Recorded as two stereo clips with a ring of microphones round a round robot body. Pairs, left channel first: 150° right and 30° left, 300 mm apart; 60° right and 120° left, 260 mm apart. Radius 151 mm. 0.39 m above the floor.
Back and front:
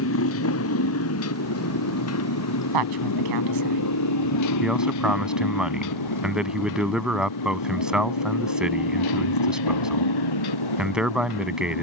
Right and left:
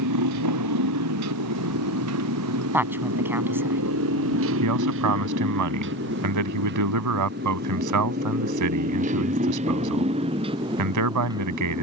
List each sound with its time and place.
0.0 s a motorcycle: 160° left; by 11.8 s 160° right
2.7 s a woman speaking: 40° left
4.6 s a man speaking: 115° left